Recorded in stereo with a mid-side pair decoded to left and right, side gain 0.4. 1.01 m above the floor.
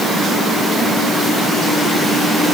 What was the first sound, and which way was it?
Only background noise.